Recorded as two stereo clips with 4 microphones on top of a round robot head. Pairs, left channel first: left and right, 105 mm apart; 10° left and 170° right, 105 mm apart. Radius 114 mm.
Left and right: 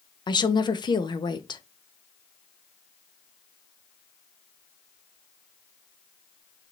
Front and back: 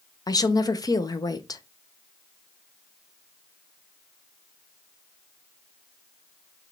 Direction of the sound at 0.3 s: 55° left.